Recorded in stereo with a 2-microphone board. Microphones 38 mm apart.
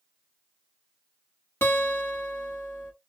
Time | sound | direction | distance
1.6 | a guitar | 80° left | 1.4 m